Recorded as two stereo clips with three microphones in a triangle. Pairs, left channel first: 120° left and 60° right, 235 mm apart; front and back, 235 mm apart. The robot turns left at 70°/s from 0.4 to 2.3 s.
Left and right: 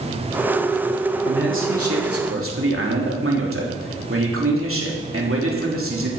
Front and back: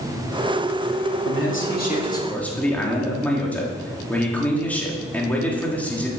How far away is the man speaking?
About 3 m.